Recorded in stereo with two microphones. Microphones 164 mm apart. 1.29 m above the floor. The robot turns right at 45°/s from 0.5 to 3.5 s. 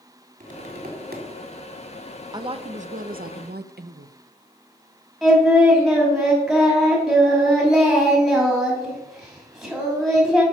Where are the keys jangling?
I don't hear keys jangling.